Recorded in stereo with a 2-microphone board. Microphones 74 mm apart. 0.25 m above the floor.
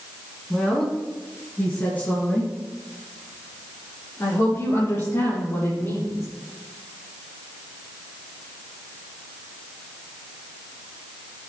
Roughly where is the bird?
No bird in this recording.